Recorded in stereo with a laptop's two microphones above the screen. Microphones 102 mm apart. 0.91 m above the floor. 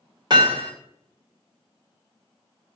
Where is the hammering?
45° right (ahead or behind), 2 m.